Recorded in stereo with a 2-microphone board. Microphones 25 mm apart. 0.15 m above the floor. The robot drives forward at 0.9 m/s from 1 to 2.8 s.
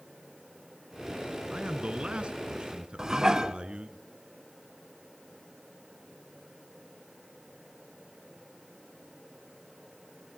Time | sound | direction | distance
1.5 | a man speaking | 45° right (ahead or behind) | 1.8 m
3.0 | dishes clattering | 25° right (ahead or behind) | 1.1 m